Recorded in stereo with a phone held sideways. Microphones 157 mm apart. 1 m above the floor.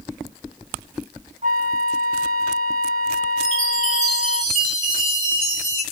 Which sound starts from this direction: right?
A flute, at 1.4 s.